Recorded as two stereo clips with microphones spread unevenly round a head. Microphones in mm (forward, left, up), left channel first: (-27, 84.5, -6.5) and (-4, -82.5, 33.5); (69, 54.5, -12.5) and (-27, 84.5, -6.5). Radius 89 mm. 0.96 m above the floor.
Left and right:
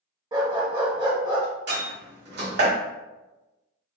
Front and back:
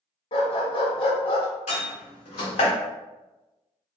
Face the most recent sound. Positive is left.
turn(degrees=-50)